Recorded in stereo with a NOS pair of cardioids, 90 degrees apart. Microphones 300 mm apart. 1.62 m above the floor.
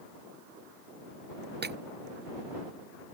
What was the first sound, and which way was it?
Breaking glass, 35° right.